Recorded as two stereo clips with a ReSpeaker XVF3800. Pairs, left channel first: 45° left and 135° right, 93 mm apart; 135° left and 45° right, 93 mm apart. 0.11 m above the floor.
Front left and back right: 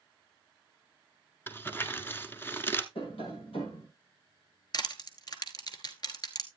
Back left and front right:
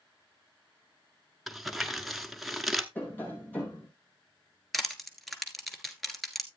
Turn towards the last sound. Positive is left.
turn(degrees=45)